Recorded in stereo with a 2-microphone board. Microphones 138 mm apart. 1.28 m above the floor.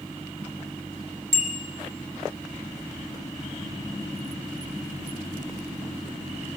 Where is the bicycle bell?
75° right (ahead or behind), 3 m.